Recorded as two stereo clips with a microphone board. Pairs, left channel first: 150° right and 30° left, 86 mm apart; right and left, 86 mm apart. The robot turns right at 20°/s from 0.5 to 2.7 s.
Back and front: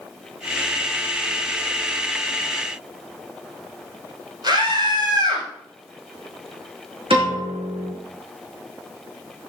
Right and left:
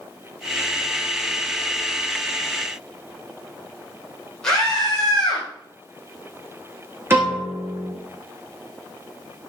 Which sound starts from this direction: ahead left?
A piano, at 7.1 s.